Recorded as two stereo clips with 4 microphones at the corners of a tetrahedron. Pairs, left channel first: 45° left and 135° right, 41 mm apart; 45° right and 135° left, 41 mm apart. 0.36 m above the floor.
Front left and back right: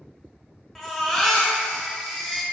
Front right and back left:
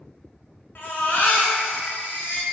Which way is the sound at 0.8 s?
35° right.